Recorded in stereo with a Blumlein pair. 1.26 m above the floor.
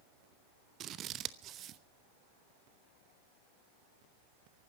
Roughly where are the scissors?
Ahead right.